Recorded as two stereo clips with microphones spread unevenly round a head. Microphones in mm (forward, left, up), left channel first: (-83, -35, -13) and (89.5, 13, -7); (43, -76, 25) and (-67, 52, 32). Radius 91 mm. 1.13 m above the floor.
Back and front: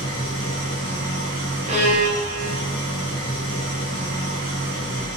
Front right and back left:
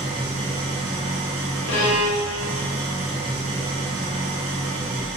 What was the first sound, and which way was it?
An engine running, 75° left.